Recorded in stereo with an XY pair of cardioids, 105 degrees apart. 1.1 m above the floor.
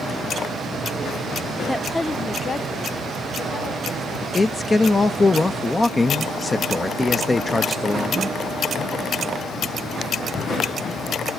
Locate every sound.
1.7 s a woman speaking: 5° right, 0.7 m; by 4.2 s 50° left, 4 m
4.3 s a man speaking: 20° left, 0.7 m